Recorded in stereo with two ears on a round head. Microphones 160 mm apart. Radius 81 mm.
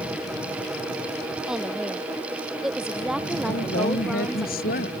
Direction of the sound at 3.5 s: 55° left (ahead or behind).